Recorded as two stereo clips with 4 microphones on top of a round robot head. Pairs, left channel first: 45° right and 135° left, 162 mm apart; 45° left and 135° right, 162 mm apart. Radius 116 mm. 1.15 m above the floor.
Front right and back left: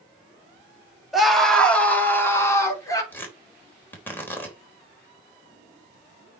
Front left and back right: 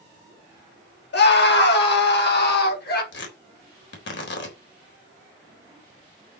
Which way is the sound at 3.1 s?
35° left.